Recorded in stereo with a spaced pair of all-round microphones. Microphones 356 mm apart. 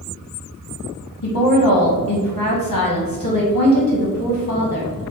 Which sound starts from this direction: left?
A woman speaking, at 1.2 s.